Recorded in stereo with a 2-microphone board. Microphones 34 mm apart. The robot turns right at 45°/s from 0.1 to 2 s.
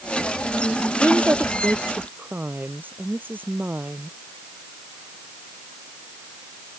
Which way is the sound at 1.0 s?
115° right.